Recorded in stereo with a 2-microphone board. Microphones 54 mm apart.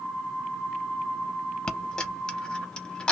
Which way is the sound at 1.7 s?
15° left (ahead or behind).